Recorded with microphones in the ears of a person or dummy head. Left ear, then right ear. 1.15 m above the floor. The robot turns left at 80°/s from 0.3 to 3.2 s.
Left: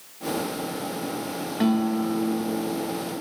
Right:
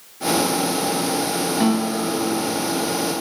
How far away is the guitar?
About 1.0 m.